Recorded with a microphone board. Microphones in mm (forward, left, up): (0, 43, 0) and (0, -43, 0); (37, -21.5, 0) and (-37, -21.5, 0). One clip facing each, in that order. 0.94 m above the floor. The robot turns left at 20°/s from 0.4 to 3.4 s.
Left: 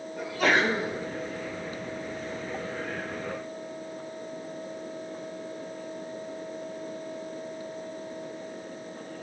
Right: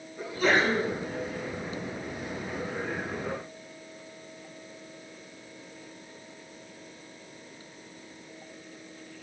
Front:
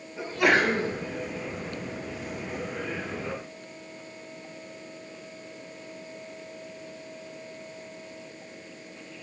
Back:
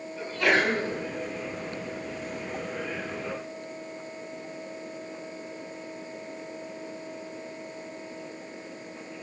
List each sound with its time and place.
0.2 s a sneeze: 75° left, 7 m; by 0.9 s 65° left, 7 m